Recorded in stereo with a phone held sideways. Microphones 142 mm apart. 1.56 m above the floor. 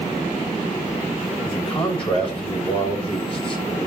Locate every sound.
1.4 s a man speaking: 40° left (ahead or behind), 6.5 m